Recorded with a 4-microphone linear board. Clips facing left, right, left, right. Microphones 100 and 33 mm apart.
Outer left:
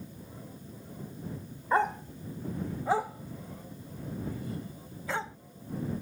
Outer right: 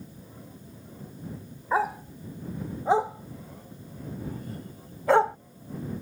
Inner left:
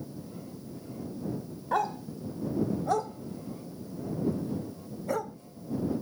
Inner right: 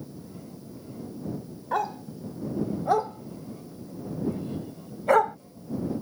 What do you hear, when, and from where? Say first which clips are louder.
1.7 s a dog barking: outer right 1 dB, inner right 1 dB; 5° right (ahead or behind); by 5.4 s 65° right (ahead or behind)